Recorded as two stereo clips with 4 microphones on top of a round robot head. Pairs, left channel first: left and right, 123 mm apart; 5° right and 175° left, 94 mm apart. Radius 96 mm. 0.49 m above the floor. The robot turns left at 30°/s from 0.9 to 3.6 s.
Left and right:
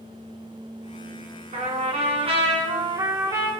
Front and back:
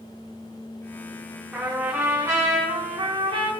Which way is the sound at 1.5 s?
100° right.